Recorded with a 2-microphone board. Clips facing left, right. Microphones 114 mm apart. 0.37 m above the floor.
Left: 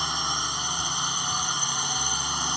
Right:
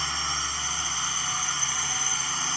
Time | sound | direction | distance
0.0 | a drone | 15° left (ahead or behind) | ?